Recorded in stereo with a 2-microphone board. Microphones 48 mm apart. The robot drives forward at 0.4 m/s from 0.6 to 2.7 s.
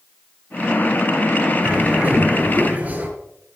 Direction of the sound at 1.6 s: 40° right (ahead or behind).